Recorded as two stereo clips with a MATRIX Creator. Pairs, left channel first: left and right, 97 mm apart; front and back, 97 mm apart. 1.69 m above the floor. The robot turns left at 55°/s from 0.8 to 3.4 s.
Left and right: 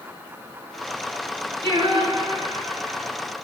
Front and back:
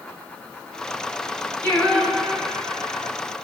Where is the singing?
70° right, 9.5 m; by 3.1 s 150° right, 9.5 m.